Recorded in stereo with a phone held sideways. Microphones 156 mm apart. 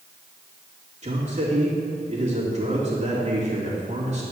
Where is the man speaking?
45° right (ahead or behind), 3 m.